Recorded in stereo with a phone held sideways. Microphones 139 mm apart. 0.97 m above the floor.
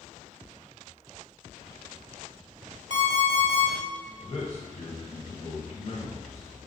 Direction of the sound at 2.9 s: 60° right (ahead or behind).